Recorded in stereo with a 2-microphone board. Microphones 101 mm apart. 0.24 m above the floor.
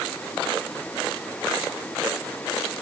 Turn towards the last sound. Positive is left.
No sound to turn to.